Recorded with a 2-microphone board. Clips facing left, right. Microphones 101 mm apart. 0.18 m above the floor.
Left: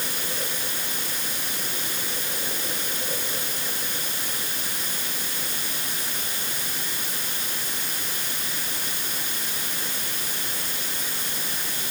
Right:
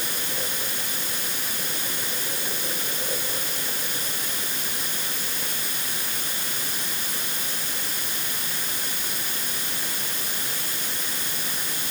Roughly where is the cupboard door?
I don't hear a cupboard door.